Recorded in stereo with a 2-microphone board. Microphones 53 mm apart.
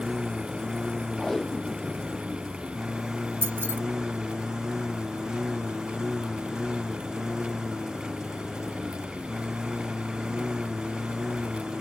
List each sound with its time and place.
0.0 s a lawn mower: 10° right (ahead or behind)
1.2 s tape being pulled: 10° left (ahead or behind)
3.4 s keys jangling: 50° right (ahead or behind)